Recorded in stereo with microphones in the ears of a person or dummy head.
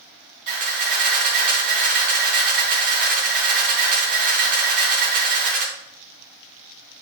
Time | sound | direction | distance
0.5 | a camera shutter | 45° right (ahead or behind) | 3.5 m